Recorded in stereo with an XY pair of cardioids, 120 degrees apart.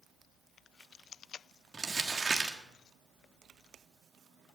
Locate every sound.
1.7 s crumpling: 25° right, 1.5 m